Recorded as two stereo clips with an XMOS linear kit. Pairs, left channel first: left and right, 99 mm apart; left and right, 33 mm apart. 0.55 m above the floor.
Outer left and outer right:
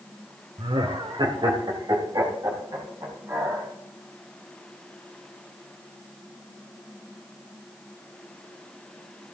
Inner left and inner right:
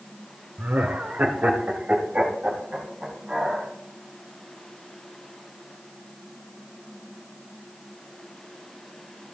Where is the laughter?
60° right (ahead or behind), 1.3 m; by 3.7 s 40° right (ahead or behind), 4 m.